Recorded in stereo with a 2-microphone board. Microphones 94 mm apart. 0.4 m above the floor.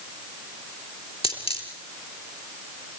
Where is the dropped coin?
75° left (ahead or behind), 3.5 m.